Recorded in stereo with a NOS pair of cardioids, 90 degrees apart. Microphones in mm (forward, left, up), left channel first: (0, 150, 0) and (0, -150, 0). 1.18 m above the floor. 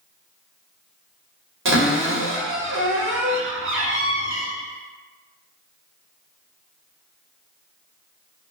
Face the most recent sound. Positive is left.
turn(degrees=-45)